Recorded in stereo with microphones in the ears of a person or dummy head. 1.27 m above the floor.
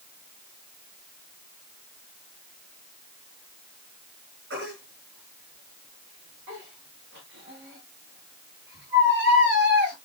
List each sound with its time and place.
4.5 s a baby crying: 75° right (ahead or behind), 7.5 m